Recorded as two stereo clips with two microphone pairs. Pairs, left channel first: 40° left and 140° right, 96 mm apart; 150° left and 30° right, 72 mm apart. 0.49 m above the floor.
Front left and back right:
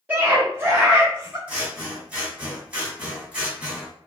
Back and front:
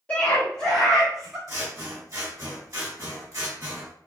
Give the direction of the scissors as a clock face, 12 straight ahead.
2 o'clock.